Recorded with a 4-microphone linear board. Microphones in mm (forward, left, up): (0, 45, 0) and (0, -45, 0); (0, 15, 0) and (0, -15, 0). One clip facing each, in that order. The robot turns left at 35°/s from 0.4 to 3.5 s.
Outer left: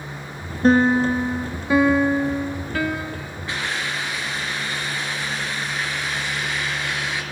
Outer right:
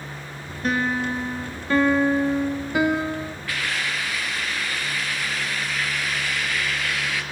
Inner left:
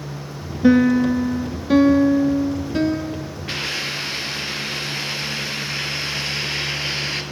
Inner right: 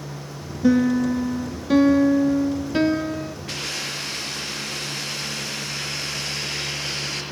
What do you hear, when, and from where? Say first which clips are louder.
0.6 s a piano: outer left 8 dB, inner left 4 dB; 50° left, 0.5 m; by 3.4 s 45° right, 0.5 m
3.5 s a hiss: outer left 2 dB, inner left 6 dB; 25° left (ahead or behind), 3 m